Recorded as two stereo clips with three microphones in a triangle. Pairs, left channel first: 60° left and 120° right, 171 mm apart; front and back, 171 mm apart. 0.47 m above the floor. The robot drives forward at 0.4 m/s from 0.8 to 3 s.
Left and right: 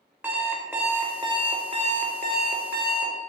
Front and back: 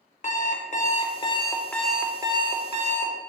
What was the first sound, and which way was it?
An alarm clock, 40° right.